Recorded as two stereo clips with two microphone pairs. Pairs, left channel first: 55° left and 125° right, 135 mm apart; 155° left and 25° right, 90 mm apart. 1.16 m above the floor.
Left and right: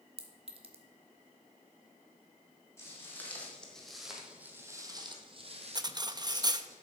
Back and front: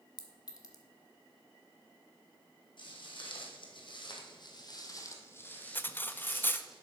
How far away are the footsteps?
About 3 m.